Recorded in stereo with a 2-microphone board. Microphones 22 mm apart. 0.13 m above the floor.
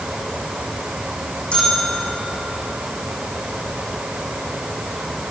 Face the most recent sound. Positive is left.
turn(degrees=60)  # may be behind; listen again after turning